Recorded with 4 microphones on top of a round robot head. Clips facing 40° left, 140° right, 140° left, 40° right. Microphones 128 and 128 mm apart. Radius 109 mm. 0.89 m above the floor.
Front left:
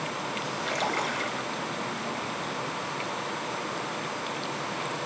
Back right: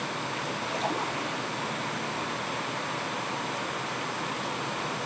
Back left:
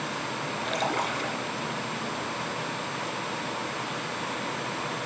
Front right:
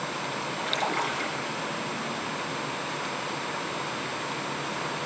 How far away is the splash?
About 2.5 m.